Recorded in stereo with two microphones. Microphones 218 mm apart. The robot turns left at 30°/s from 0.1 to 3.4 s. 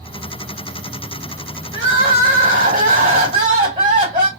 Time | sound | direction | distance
1.7 | crying | 105° right | 1.7 m